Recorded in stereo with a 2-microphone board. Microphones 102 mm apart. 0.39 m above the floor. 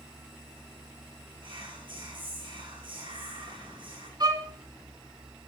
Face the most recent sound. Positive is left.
turn(degrees=-40)  # may be behind; listen again after turning